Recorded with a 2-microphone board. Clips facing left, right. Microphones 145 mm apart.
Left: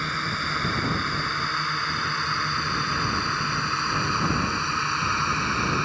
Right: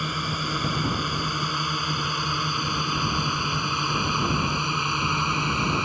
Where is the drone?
15° right (ahead or behind); by 5.9 s 20° right (ahead or behind).